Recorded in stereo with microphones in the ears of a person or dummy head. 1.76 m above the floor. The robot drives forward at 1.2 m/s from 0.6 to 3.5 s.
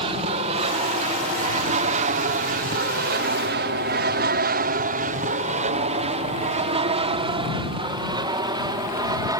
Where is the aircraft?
30° right (ahead or behind); by 9.4 s 20° right (ahead or behind).